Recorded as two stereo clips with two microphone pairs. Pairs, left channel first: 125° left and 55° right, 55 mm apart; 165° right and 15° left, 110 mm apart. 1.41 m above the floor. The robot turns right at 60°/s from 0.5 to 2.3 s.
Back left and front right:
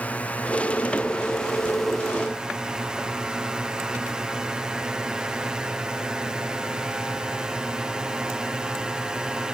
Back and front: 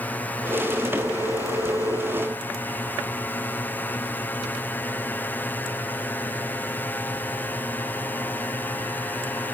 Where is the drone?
140° left; by 9.5 s 115° right.